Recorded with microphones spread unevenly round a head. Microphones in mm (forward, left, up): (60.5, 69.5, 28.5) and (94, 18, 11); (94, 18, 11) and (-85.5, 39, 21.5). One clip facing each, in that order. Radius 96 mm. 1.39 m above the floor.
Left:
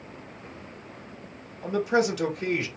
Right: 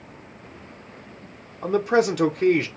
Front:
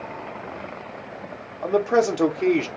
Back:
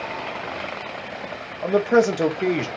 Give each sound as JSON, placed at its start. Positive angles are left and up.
{"t": 1.6, "sound": "a man speaking", "azimuth_deg": -105, "distance_m": 0.8}